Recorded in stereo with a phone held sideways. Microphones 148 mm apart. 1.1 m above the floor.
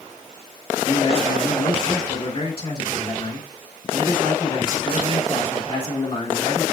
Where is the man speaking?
35° left (ahead or behind), 1.8 m.